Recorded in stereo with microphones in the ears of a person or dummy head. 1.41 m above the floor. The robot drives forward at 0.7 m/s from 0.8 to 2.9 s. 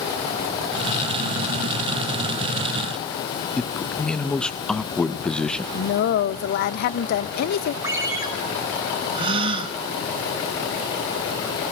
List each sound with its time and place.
3.6 s a man speaking: centre (ahead or behind), 1.0 m
5.7 s a woman speaking: 60° left (ahead or behind), 1.1 m
7.8 s a ringtone: 20° right (ahead or behind), 4 m
9.1 s a gasp: 25° right (ahead or behind), 3 m